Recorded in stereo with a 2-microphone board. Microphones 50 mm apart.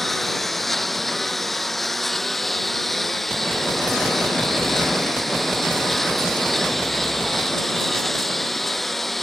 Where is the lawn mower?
5° left (ahead or behind).